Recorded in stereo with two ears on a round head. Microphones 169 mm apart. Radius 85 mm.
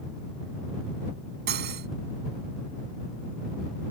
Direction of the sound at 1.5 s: 60° right (ahead or behind).